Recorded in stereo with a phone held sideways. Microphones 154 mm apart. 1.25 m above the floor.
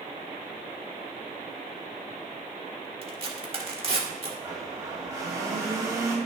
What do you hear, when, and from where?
3.0 s tearing paper: 40° right (ahead or behind), 1.5 m
4.4 s a blender: 20° right (ahead or behind), 2 m